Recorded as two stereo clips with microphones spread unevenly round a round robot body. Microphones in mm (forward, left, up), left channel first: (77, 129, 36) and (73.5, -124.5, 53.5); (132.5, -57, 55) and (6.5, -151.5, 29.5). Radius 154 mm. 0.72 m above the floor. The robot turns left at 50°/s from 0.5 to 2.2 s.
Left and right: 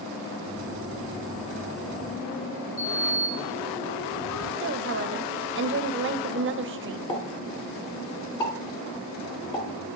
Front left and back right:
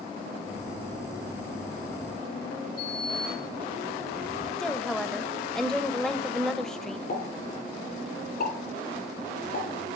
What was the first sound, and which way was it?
A sliding door, 140° left.